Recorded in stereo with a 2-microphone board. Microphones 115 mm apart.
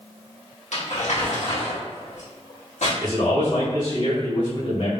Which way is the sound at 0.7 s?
80° left.